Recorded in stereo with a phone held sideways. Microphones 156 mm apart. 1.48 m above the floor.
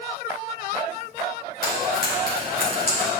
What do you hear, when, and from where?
1.6 s frying: 75° left (ahead or behind), 3 m